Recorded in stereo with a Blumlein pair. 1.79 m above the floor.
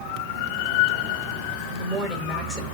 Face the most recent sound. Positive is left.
turn(degrees=-5)